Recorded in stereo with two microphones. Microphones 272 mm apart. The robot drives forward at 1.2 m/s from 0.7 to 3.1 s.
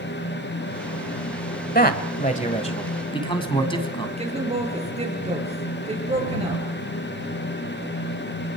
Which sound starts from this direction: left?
A man speaking, at 1.8 s.